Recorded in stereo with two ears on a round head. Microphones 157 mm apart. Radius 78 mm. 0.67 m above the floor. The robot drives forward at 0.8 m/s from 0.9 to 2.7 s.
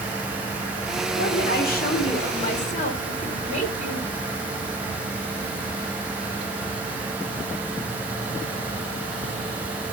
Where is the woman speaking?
60° left (ahead or behind), 2 m; by 4.1 s 45° left (ahead or behind), 2.5 m.